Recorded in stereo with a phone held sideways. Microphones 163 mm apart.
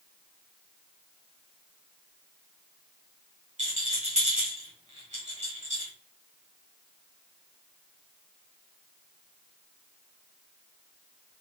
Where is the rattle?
45° right (ahead or behind), 1.7 m.